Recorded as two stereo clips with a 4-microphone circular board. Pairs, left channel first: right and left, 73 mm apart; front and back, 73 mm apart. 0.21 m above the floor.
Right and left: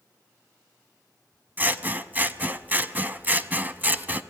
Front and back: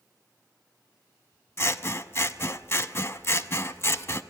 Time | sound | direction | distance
1.6 | scissors | 35° left | 0.5 m